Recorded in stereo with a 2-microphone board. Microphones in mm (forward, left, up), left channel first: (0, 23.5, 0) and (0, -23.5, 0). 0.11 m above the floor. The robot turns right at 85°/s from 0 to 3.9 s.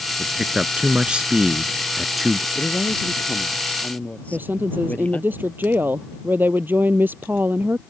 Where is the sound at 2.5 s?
25° left; by 5.3 s 140° left.